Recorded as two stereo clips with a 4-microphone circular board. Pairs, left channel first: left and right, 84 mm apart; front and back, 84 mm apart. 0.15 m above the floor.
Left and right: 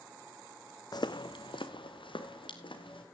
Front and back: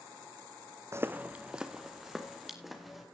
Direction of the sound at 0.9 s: 125° left.